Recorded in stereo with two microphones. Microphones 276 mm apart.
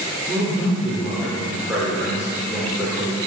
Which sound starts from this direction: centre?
A man speaking, at 0.3 s.